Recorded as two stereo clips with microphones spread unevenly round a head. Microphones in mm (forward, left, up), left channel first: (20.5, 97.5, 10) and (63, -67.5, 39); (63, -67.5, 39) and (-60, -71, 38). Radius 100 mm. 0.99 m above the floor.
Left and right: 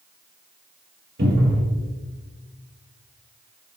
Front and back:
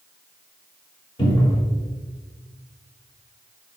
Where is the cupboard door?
45° right, 3.5 m.